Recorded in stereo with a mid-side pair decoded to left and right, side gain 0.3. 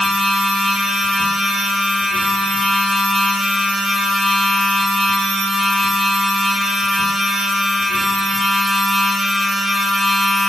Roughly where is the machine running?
Ahead left.